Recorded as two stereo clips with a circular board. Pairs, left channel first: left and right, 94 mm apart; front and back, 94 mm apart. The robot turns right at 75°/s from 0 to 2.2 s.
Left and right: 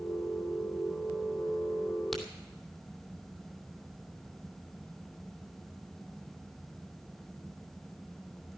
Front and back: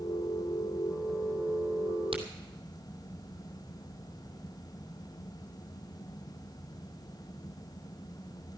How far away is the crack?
About 2.5 m.